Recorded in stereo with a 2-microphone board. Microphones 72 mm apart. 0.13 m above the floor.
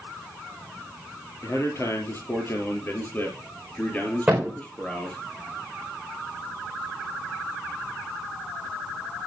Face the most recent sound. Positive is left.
turn(degrees=-15)  # may be behind; listen again after turning